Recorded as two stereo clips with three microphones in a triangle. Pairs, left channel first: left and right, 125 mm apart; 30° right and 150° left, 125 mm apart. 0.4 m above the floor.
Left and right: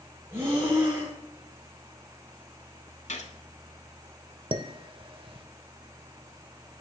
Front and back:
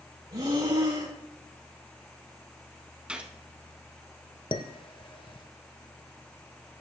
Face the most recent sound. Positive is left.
turn(degrees=-60)